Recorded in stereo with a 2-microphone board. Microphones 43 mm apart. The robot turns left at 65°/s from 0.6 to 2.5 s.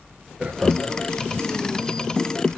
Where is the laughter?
20° right (ahead or behind), 1.0 m; by 1.0 s 30° right (ahead or behind), 1.0 m.